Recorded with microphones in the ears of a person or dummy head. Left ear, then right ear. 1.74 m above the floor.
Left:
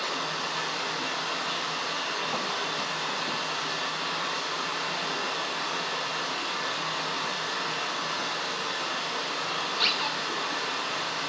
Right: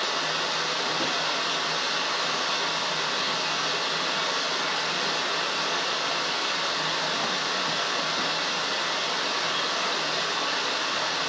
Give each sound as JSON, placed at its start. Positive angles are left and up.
{"t": 0.0, "sound": "running water", "side_deg": -40, "distance_m": 1.8}